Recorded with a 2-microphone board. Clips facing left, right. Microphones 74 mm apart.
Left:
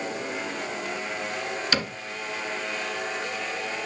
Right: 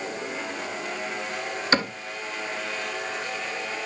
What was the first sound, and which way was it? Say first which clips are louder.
A cupboard door: right 7 dB; 35° right (ahead or behind).